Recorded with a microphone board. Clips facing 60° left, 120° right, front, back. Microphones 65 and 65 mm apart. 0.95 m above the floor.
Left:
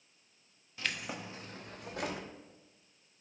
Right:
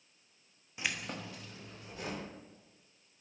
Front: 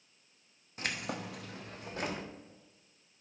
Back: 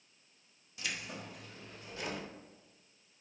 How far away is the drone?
No drone in this recording.